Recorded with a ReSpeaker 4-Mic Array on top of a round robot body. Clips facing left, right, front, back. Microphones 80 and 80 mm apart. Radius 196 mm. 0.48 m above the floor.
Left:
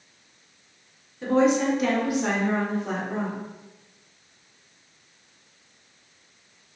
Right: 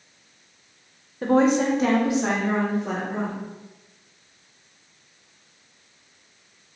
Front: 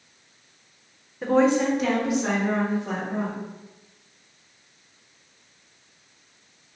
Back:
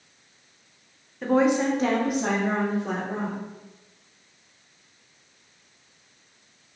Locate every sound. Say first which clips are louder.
1.2 s a woman speaking: right 2 dB, front 1 dB; 85° right, 1.0 m; by 3.4 s 175° right, 2.5 m